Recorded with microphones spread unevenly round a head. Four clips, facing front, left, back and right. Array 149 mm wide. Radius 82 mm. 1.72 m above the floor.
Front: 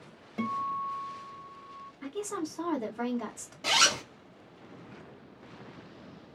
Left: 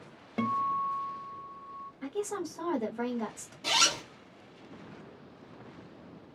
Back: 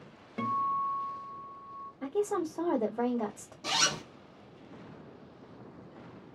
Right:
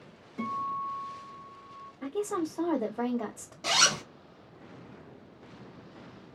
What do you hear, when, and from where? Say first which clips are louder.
0.4 s a guitar: left 3 dB, back 2 dB; 85° left, 0.7 m
2.0 s a woman speaking: right 3 dB, back 5 dB; 155° right, 1.4 m
3.6 s a zipper: right 2 dB, front 4 dB; 55° right, 1.5 m